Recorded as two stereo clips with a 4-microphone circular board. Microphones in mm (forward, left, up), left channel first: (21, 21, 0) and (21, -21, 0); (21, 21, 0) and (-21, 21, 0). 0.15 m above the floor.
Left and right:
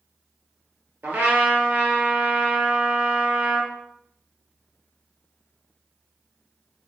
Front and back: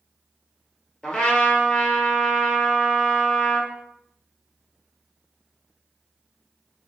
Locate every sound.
1.0 s a trumpet: 70° right, 0.9 m